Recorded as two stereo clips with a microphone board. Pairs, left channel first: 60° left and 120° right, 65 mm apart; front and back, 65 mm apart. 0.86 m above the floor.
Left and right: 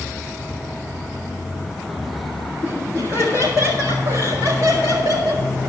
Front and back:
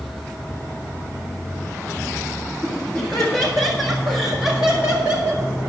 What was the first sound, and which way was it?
Laughter, 75° right.